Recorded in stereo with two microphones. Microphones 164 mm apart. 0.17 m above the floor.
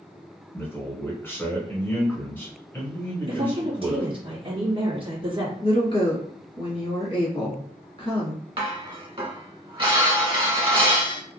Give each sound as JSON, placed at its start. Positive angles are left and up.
{"t": 0.5, "sound": "a man speaking", "side_deg": 15, "distance_m": 1.4}
{"t": 3.3, "sound": "a woman speaking", "side_deg": -35, "distance_m": 1.6}
{"t": 5.6, "sound": "a woman speaking", "side_deg": 35, "distance_m": 1.5}
{"t": 8.6, "sound": "dishes clattering", "side_deg": -35, "distance_m": 1.0}